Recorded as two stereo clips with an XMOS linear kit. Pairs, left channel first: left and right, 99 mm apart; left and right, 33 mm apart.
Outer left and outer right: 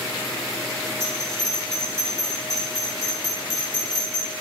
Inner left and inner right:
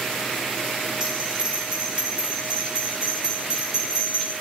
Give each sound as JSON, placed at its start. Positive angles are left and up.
{"t": 1.0, "sound": "a bell", "side_deg": -35, "distance_m": 1.9}